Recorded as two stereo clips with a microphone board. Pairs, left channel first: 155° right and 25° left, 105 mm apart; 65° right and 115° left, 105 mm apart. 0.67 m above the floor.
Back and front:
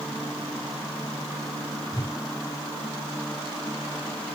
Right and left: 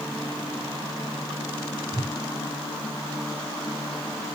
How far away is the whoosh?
About 3 m.